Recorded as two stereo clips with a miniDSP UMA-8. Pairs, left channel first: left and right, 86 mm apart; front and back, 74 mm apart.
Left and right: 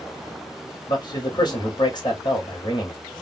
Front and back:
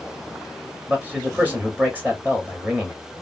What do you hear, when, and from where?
0.9 s a man speaking: 115° left, 1.8 m